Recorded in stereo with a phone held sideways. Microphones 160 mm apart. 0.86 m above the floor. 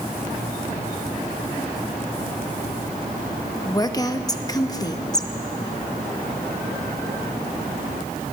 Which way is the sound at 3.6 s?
25° left (ahead or behind).